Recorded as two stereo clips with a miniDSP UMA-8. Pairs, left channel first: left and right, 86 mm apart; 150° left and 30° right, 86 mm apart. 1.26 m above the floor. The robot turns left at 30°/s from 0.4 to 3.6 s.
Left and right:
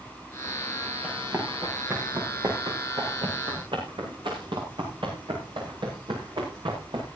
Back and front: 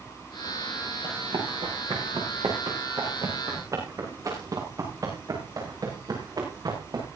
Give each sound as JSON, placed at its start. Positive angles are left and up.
{"t": 1.0, "sound": "running footsteps", "azimuth_deg": -15, "distance_m": 7.0}